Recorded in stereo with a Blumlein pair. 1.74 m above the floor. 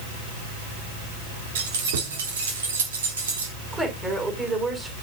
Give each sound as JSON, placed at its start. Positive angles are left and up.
{"t": 1.6, "sound": "keys jangling", "azimuth_deg": -60, "distance_m": 3.0}
{"t": 3.7, "sound": "a woman speaking", "azimuth_deg": -10, "distance_m": 5.5}